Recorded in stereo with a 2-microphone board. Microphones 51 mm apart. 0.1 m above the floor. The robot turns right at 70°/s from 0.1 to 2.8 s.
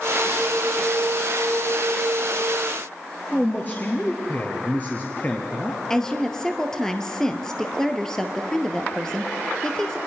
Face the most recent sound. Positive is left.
turn(degrees=10)  # may be behind; listen again after turning